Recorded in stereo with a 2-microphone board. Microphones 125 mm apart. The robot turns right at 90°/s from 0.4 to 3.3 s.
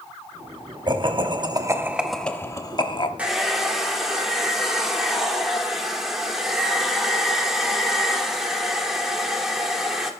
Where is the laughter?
115° right, 0.9 m; by 3.1 s 85° left, 0.9 m.